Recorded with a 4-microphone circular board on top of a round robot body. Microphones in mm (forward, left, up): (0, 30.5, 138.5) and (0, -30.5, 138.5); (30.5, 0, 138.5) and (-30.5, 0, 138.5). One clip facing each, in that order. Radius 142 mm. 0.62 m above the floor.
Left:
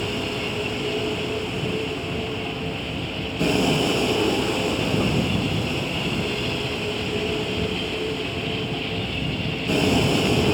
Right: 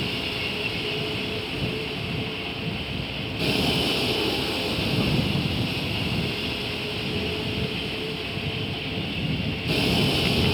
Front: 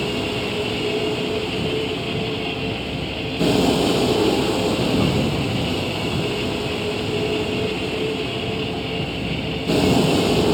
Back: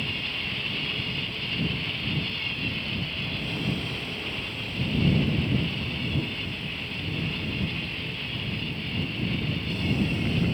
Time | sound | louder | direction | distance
0.0 | a vehicle | left 3 dB, front 9 dB | 15° left | ?